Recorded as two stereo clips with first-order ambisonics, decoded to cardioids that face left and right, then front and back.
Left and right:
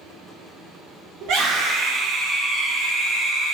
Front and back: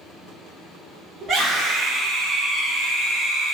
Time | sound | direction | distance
1.2 | a scream | 115° right | 0.9 m